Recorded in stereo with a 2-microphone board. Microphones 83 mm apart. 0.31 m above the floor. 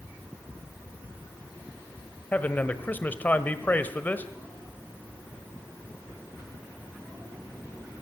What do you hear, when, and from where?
2.3 s a man speaking: 20° left (ahead or behind), 1.5 m